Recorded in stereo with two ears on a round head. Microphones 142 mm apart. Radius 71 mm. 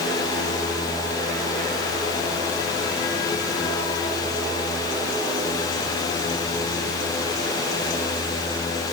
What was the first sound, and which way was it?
Only background noise.